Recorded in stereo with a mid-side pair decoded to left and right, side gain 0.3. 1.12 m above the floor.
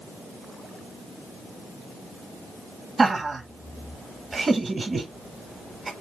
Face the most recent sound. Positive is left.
turn(degrees=-45)